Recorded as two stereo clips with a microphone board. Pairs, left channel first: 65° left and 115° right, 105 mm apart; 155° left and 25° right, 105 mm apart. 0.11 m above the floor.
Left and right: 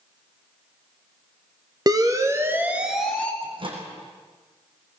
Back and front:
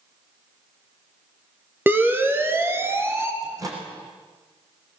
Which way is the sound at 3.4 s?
80° right.